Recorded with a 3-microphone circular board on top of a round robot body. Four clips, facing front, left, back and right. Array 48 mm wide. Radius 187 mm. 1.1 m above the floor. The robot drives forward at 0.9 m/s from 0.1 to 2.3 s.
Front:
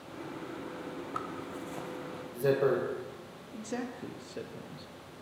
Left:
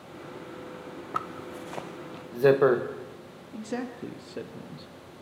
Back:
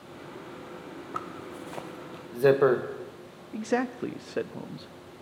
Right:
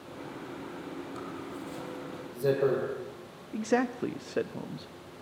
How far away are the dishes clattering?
No dishes clattering in this recording.